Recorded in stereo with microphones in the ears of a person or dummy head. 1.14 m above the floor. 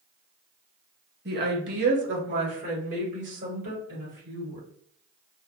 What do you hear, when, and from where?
1.2 s a woman speaking: 50° right (ahead or behind), 0.8 m; by 4.6 s 60° right (ahead or behind), 2.5 m